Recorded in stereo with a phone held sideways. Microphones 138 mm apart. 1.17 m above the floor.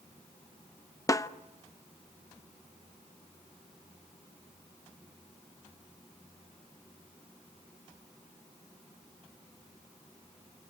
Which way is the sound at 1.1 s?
25° left (ahead or behind).